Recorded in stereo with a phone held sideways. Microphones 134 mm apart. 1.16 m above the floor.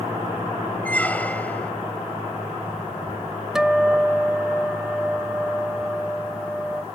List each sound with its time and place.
0.8 s a squeak: 10° left (ahead or behind)
3.5 s a guitar: 5° right (ahead or behind)